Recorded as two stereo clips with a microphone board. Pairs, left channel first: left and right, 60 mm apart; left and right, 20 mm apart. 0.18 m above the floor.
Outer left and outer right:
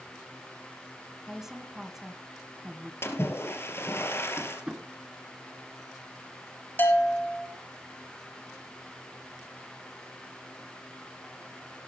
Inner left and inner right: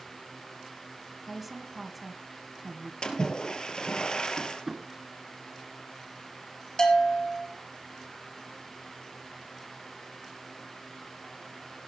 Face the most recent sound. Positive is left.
turn(degrees=35)  # may be behind; listen again after turning